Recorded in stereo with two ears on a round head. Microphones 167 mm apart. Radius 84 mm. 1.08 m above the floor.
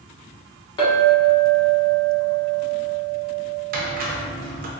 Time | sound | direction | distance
0.8 | a clink | 25° left (ahead or behind) | 1.2 m
3.7 | a squeak | 45° right (ahead or behind) | 0.5 m